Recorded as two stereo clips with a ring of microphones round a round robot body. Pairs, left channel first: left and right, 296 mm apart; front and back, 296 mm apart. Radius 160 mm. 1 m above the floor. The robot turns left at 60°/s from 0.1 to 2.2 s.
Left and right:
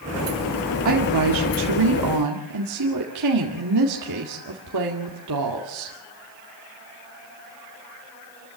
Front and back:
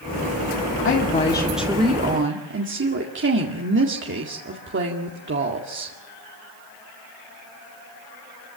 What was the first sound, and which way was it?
A woman speaking, 50° right.